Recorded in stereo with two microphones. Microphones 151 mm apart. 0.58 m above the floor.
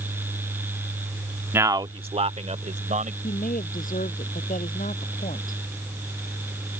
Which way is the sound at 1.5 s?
15° right (ahead or behind).